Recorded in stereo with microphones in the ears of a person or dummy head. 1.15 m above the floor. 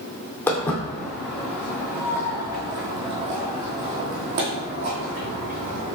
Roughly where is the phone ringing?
I don't hear a phone ringing.